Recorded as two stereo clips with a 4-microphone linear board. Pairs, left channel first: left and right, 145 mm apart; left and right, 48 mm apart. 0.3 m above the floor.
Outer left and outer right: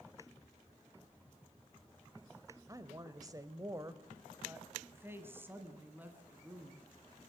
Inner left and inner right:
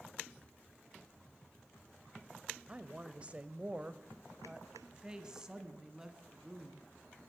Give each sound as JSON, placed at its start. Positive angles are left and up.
{"t": 2.7, "sound": "a woman speaking", "side_deg": -25, "distance_m": 1.0}